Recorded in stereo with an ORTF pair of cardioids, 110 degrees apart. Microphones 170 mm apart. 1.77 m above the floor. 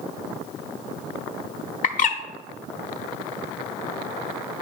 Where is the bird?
50° left, 0.9 m.